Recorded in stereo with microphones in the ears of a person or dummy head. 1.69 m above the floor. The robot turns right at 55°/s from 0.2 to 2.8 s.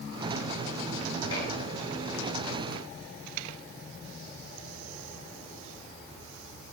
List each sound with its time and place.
1.3 s dishes clattering: 85° left, 9.5 m; by 1.5 s 80° left, 9.5 m